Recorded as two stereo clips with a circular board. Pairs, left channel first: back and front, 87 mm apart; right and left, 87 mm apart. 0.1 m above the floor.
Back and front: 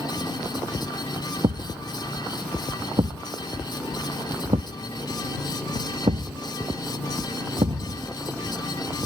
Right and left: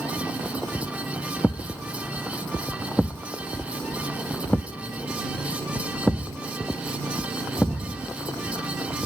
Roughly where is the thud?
Ahead.